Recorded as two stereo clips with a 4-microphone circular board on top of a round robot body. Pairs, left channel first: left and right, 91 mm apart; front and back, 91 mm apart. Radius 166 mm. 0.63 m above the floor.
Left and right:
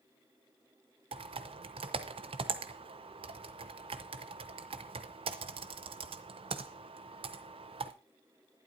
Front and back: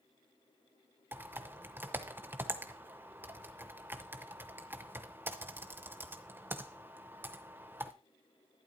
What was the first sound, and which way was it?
Typing on a keyboard, 110° right.